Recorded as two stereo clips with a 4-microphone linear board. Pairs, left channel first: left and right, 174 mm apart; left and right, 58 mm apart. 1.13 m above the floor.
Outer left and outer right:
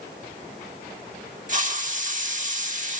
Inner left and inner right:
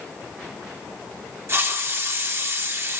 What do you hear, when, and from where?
1.5 s a hiss: 45° right (ahead or behind), 1.5 m